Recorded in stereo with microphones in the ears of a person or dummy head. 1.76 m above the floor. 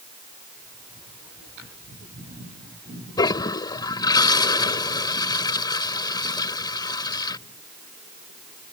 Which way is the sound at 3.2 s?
25° left (ahead or behind).